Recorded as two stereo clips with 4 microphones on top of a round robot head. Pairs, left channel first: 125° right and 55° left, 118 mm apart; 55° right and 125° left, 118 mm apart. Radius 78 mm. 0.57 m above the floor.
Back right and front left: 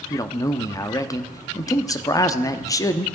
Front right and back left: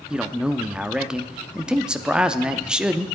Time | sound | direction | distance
0.1 | a man speaking | 160° right | 0.9 m